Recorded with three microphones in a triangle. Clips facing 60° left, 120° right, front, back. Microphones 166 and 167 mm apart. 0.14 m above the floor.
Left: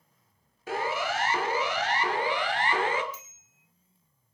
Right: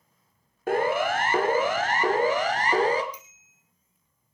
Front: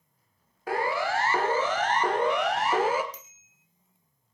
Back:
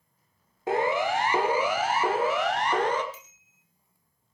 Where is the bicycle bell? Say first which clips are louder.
Right 1 dB, front 1 dB; 45° right, 4 m.